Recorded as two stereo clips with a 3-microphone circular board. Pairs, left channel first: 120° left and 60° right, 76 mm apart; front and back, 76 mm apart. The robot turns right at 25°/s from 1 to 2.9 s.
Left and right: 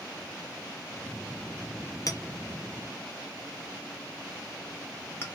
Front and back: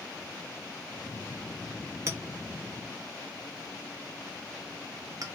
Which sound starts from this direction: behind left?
A clink, at 2.1 s.